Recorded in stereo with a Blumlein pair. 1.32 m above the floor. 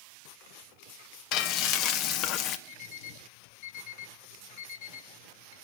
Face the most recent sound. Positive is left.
turn(degrees=50)